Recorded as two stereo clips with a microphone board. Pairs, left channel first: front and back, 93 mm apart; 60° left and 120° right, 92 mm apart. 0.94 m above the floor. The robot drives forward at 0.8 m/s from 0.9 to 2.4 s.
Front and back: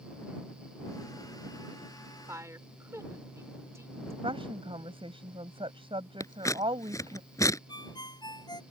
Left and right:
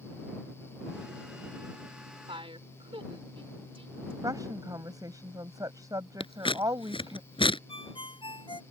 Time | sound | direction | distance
2.3 | a woman speaking | 120° right | ?
4.2 | a woman speaking | 170° right | ?
6.2 | scissors | 50° left | ?
7.7 | a ringtone | 40° left | ?